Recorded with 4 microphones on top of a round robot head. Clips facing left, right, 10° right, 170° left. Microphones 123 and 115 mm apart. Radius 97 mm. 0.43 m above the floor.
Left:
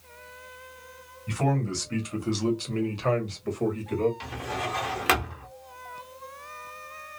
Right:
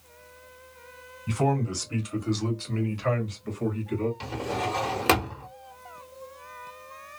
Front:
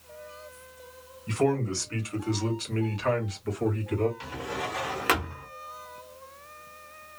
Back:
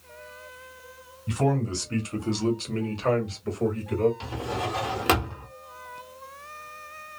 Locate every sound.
1.3 s a man speaking: 120° right, 1.3 m; by 4.1 s 115° left, 1.9 m
4.2 s a drawer: 135° right, 0.7 m